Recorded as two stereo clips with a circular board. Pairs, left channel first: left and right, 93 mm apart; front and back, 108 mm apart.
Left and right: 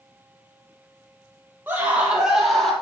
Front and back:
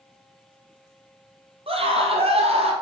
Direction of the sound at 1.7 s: 160° right.